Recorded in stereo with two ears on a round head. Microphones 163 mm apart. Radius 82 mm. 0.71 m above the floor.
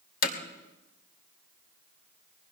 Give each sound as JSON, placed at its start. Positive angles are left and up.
{"t": 0.2, "sound": "hammering", "side_deg": 50, "distance_m": 3.0}